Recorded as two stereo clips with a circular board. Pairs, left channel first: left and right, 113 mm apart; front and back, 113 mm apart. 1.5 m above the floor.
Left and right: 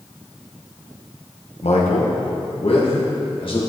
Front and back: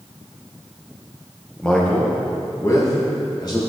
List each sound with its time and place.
1.6 s a man speaking: 85° left, 1.4 m; by 3.7 s 50° left, 2.5 m